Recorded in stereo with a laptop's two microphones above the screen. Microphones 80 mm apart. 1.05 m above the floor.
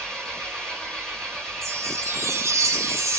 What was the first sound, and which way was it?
An engine running, 5° left (ahead or behind).